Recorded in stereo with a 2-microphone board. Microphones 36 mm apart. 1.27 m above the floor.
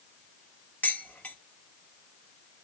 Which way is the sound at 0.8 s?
40° left (ahead or behind).